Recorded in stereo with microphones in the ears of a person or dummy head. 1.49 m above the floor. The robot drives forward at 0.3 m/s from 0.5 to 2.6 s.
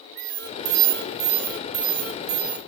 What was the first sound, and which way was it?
An alarm, 60° right (ahead or behind).